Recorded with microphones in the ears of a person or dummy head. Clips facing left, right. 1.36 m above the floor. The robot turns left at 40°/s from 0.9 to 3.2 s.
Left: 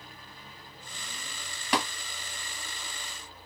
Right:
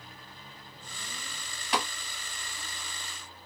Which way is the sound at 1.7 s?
55° left (ahead or behind).